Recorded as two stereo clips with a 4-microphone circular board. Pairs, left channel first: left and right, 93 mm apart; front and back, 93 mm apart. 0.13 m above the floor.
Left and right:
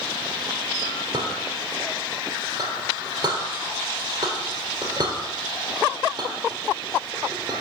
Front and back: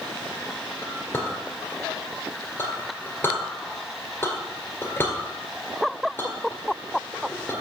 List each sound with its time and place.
0.8 s a clink: 60° right, 1.8 m